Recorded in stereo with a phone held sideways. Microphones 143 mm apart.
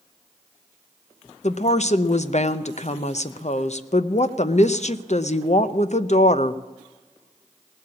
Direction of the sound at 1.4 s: 55° left (ahead or behind).